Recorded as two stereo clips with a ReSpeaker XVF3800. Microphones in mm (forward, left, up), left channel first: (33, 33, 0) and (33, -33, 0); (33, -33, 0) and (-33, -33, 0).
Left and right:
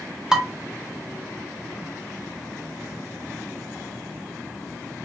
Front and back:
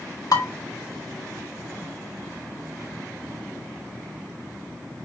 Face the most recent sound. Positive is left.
turn(degrees=-10)